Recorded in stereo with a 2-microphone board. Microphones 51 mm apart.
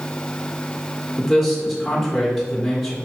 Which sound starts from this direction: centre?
A man speaking, at 1.2 s.